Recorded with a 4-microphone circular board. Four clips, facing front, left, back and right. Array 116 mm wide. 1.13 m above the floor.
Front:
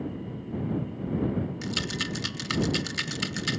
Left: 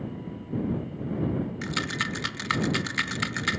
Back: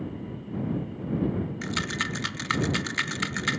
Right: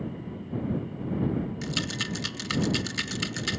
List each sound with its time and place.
1.6 s a rattle: 130° left